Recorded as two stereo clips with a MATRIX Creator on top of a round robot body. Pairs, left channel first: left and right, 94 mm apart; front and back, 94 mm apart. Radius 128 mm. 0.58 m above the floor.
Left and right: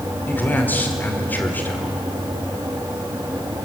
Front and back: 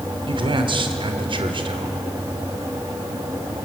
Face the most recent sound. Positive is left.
turn(degrees=160)